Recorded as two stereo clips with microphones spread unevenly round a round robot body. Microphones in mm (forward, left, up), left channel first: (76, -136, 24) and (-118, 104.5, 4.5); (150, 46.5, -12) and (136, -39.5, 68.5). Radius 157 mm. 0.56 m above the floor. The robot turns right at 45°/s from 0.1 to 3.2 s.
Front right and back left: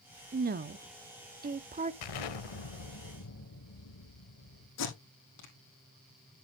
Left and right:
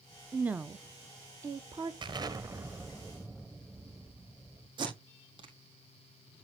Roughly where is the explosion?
Ahead right.